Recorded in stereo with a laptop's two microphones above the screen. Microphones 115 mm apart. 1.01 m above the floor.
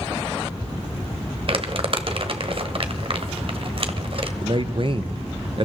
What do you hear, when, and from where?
1.5 s crumpling: 55° right (ahead or behind), 1.1 m
4.4 s a man speaking: 45° right (ahead or behind), 0.6 m